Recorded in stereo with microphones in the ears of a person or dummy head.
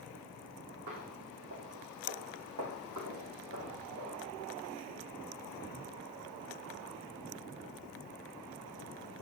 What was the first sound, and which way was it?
Footsteps, 65° right (ahead or behind).